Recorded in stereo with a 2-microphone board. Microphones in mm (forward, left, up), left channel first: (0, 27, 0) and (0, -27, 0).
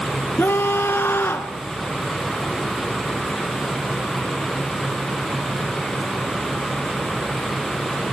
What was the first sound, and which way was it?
A scream, 40° left (ahead or behind).